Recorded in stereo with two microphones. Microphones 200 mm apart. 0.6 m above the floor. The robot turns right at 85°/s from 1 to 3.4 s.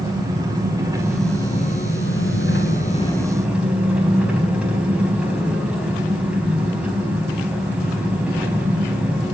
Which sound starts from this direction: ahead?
An engine running, at 0.0 s.